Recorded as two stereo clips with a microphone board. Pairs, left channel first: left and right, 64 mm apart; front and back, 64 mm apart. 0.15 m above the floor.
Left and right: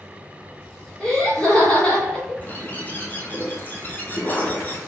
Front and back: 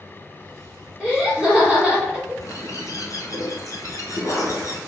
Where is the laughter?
140° left, 1.7 m.